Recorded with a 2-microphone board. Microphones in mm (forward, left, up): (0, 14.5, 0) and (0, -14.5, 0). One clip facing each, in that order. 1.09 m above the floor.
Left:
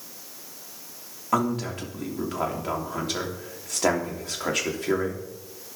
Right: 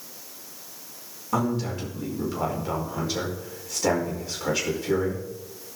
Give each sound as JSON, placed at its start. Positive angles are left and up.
{"t": 1.3, "sound": "a man speaking", "side_deg": 70, "distance_m": 3.0}